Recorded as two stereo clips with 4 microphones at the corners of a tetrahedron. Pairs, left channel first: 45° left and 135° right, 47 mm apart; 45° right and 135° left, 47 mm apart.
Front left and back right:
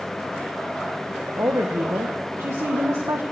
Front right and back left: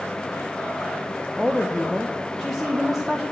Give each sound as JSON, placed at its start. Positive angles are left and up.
{"t": 1.3, "sound": "a woman speaking", "azimuth_deg": -130, "distance_m": 1.4}